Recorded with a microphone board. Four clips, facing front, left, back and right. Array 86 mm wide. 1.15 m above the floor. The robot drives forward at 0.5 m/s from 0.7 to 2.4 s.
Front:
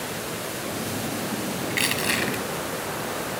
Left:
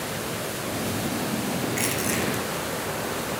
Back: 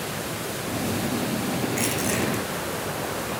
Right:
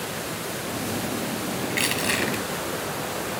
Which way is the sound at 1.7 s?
30° right.